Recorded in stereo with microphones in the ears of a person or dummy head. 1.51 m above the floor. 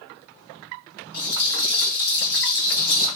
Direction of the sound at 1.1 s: 75° left (ahead or behind).